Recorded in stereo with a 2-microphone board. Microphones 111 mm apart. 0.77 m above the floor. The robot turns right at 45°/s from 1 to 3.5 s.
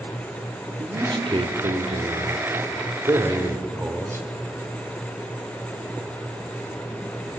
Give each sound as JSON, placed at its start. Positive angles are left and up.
{"t": 0.8, "sound": "a man speaking", "azimuth_deg": -135, "distance_m": 3.0}